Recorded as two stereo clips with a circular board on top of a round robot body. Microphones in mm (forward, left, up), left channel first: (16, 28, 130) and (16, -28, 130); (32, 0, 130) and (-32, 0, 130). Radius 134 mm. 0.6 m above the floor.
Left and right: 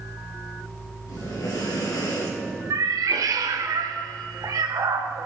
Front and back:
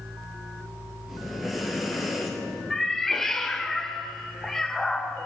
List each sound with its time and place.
1.1 s breathing: 95° left, 3 m
2.7 s a cat meowing: 85° right, 0.8 m